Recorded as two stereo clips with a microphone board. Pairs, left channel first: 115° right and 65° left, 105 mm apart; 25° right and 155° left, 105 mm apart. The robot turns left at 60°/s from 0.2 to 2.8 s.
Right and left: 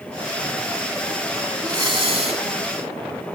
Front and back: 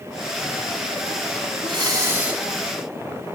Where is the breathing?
120° left, 2 m; by 2.4 s 70° left, 2 m.